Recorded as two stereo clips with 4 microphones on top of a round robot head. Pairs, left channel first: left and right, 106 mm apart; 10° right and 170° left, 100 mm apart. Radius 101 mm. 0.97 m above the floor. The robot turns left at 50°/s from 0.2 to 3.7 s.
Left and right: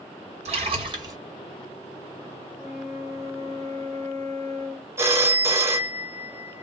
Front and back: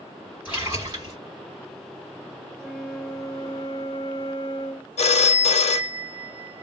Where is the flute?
80° left, 1.2 m; by 4.9 s 20° left, 1.2 m.